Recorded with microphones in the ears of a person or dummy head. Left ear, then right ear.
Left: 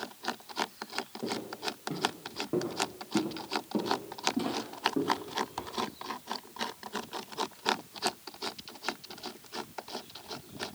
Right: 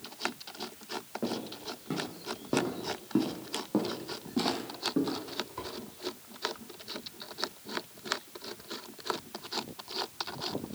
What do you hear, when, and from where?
1.2 s footsteps: 70° right (ahead or behind), 4 m; by 5.7 s 10° right (ahead or behind), 3 m